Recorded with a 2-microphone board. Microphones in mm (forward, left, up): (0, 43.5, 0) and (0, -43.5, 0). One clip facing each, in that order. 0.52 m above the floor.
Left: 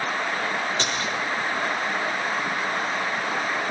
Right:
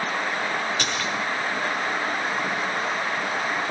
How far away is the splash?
About 10 m.